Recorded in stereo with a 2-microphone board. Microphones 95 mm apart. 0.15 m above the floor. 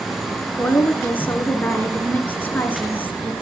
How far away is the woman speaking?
About 2 m.